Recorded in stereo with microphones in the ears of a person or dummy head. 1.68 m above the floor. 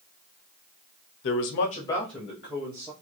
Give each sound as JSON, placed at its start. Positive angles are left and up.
{"t": 1.2, "sound": "a man speaking", "side_deg": 60, "distance_m": 0.8}